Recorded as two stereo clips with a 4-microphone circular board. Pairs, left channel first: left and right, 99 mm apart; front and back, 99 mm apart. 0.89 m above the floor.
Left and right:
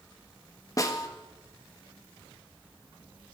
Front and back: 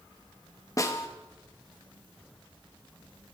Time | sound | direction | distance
0.8 | a snare drum | 45° left | 1.5 m